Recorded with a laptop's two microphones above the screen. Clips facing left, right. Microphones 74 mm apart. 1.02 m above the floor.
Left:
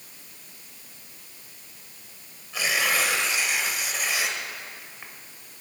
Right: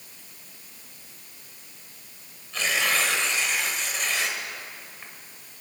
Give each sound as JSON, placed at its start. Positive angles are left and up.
{"t": 2.5, "sound": "tearing paper", "side_deg": 10, "distance_m": 1.6}